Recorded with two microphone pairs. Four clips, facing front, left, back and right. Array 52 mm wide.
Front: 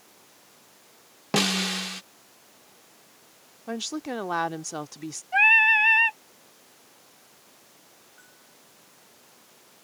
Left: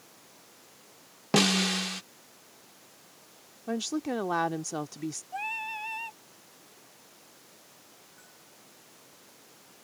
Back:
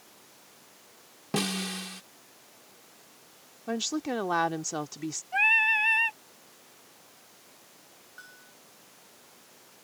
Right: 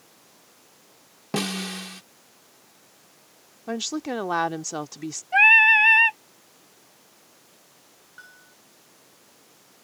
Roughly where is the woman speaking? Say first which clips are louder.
Right 2 dB, back 1 dB; right.